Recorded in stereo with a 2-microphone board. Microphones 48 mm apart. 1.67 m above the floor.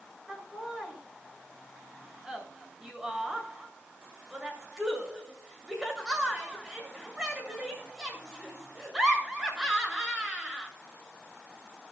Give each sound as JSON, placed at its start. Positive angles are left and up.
{"t": 0.3, "sound": "laughter", "side_deg": -15, "distance_m": 8.0}